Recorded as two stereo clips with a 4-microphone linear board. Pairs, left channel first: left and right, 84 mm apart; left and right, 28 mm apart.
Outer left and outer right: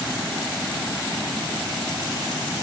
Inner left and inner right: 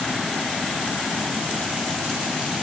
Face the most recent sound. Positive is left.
No sound to turn to.